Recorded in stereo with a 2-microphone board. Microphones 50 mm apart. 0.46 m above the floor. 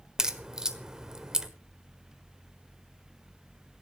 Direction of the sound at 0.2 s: 15° right (ahead or behind).